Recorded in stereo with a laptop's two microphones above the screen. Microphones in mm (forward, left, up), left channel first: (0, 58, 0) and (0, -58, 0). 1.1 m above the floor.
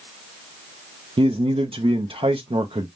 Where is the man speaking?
50° right (ahead or behind), 0.5 m.